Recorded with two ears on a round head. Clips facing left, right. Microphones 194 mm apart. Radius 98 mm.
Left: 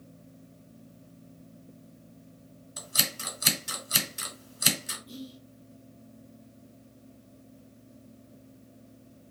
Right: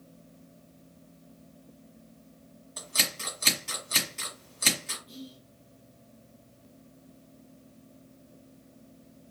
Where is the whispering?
15° left (ahead or behind), 0.6 m.